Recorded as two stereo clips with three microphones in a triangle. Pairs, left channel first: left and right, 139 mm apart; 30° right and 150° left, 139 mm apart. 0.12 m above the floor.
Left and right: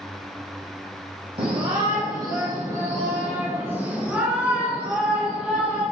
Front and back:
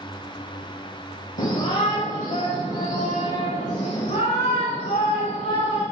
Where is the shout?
45° right, 5 m; by 5.8 s 5° right, 9 m.